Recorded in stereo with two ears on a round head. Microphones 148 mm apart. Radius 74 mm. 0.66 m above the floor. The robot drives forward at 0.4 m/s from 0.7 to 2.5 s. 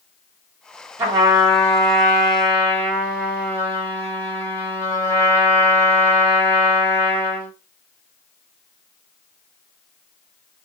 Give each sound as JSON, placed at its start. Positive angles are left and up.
{"t": 1.0, "sound": "a trumpet", "side_deg": -25, "distance_m": 1.4}